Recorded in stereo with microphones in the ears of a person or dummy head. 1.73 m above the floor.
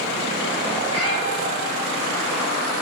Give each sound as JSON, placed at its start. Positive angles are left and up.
{"t": 0.9, "sound": "a cat meowing", "side_deg": -75, "distance_m": 5.5}